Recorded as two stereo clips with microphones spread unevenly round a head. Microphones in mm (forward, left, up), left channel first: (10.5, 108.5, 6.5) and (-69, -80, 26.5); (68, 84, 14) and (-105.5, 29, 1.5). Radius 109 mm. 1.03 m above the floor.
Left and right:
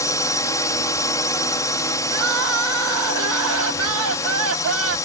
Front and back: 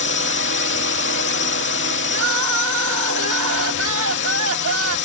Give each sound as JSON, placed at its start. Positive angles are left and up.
{"t": 0.0, "sound": "a drone", "azimuth_deg": -5}
{"t": 2.1, "sound": "crying", "azimuth_deg": -130}